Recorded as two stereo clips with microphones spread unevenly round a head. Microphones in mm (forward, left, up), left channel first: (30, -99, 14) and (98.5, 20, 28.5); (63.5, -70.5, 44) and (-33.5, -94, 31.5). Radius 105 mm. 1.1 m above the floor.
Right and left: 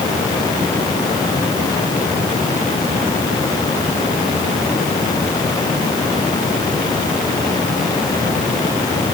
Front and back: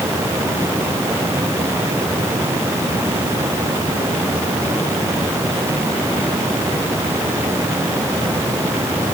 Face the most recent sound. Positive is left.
No sound to turn to.